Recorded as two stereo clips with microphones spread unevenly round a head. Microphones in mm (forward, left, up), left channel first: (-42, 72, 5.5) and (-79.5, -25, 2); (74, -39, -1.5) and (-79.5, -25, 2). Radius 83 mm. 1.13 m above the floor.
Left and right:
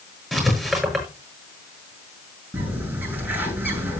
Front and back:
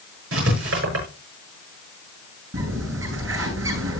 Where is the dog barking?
I don't hear a dog barking.